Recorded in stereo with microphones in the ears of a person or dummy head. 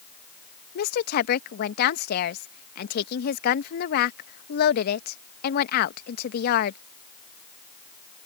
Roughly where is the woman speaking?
Left.